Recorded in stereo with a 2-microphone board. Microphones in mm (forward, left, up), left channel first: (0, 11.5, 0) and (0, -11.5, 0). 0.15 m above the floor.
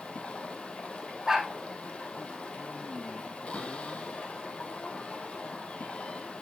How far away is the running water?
About 1.9 m.